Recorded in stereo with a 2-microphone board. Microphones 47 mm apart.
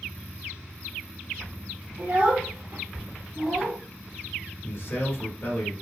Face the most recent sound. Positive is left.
turn(degrees=45)  # may be behind; listen again after turning